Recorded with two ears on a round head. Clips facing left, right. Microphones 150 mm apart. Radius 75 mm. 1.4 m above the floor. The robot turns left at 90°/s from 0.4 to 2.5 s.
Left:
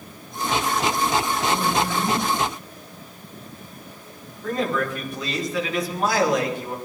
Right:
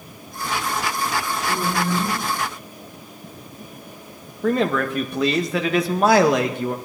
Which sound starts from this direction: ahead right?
A woman speaking, at 1.5 s.